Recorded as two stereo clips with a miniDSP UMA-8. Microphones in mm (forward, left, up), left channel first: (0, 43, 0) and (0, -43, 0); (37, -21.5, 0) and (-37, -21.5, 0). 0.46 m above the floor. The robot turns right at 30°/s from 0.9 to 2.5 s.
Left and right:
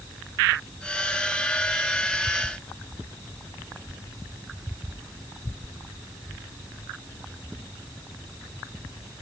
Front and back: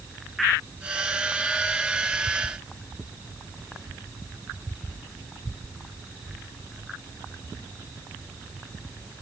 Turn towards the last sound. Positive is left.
No sound to turn to.